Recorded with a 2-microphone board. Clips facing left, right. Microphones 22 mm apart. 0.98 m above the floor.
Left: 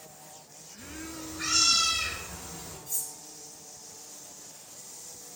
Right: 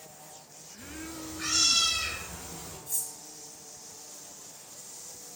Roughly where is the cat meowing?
Left.